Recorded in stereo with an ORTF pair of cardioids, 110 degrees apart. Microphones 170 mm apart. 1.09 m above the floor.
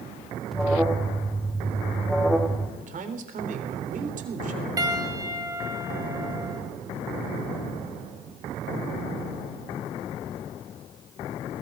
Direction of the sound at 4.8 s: 20° right.